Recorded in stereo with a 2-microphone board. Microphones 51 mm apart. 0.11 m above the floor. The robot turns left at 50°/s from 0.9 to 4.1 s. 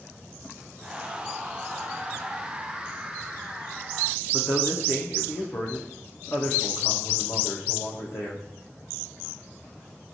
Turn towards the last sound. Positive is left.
turn(degrees=55)  # may be behind; listen again after turning